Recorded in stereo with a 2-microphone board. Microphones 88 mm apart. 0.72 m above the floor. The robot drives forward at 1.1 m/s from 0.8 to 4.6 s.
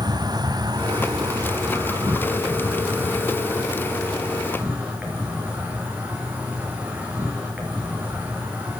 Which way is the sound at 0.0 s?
55° right (ahead or behind).